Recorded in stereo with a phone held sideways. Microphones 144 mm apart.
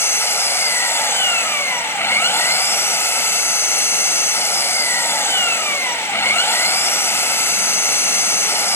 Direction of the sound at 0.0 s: 15° left (ahead or behind).